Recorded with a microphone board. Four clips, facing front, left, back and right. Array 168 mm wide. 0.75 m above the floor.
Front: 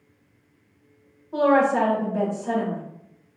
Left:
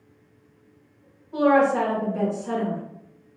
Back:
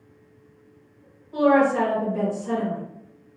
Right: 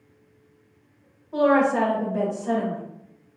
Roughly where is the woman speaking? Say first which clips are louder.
Even, even; ahead right.